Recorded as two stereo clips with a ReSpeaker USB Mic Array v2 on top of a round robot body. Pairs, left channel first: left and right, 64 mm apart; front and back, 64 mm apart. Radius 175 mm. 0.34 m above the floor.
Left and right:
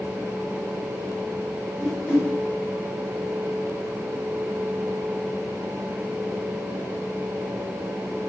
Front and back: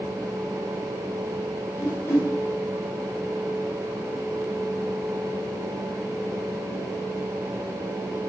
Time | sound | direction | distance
1.8 | a whoosh | 25° left | 1.2 m